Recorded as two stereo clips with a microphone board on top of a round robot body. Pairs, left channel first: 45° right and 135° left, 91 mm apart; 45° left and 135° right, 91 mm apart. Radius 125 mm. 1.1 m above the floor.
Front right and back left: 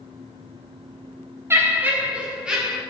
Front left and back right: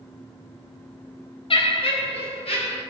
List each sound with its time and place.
1.5 s laughter: 70° left, 1.4 m; by 2.8 s 50° left, 2.5 m